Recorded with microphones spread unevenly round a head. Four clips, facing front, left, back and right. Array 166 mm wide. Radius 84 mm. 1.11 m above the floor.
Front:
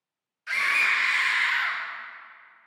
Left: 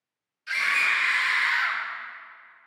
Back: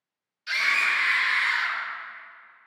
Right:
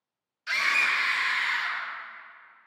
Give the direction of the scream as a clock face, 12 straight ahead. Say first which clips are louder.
Left 1 dB, even; 2 o'clock.